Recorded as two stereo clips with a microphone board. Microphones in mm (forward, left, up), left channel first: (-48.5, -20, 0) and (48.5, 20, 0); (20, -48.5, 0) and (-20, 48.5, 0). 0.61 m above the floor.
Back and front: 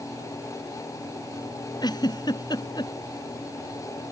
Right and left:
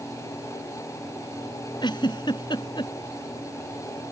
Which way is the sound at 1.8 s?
110° right.